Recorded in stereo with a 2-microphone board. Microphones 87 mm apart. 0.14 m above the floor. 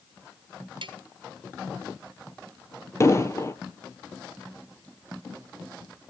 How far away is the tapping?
About 1.7 m.